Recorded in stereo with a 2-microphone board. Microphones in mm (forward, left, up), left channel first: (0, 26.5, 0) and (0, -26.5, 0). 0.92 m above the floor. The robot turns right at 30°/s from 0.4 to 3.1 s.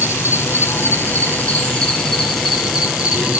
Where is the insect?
120° left, 5 m; by 3.4 s 160° right, 5 m.